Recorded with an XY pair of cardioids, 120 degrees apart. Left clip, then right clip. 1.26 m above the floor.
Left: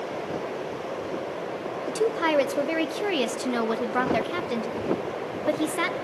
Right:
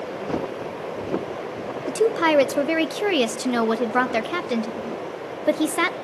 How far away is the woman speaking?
About 0.5 m.